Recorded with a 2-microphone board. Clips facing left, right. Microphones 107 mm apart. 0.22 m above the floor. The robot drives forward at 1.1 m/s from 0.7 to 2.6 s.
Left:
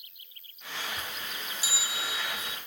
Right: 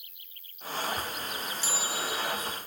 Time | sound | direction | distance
0.0 | an insect | 80° right | 2.5 m
1.6 | a bell | 10° left (ahead or behind) | 0.8 m